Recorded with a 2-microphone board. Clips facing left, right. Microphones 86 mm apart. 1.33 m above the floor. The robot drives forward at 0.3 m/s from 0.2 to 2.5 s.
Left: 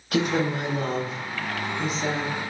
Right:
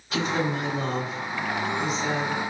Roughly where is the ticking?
I don't hear ticking.